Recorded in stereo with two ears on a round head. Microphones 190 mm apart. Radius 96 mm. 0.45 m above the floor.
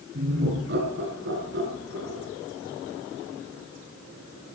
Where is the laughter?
50° right (ahead or behind), 6.5 m; by 2.3 s 70° right (ahead or behind), 7.5 m.